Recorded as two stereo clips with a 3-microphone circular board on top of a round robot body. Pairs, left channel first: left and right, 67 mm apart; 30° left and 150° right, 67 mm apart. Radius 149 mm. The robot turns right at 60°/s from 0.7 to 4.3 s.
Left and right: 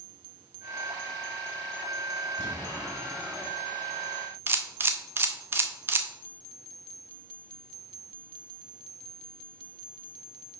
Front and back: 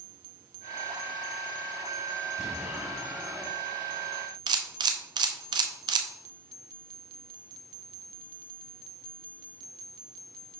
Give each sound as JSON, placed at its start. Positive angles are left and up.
{"t": 2.4, "sound": "an explosion", "azimuth_deg": 120, "distance_m": 2.5}
{"t": 4.5, "sound": "a camera shutter", "azimuth_deg": -150, "distance_m": 0.6}